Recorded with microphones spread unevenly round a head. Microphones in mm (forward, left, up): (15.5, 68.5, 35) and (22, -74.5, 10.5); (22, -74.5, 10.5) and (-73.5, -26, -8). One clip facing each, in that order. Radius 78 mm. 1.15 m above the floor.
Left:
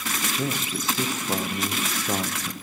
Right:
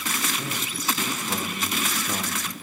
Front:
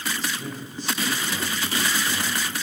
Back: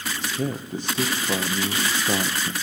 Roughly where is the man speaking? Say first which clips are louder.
Left 3 dB, back 4 dB; behind.